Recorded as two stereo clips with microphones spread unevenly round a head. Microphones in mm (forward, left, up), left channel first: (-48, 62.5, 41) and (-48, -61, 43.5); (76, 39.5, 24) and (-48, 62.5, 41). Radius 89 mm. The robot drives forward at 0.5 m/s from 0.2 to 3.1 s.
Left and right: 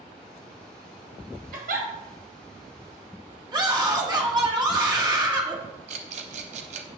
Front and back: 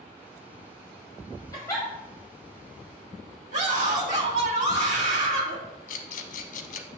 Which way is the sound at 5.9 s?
45° right.